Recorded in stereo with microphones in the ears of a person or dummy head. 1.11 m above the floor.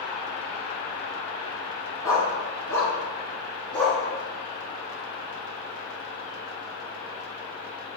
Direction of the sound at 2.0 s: 15° left (ahead or behind).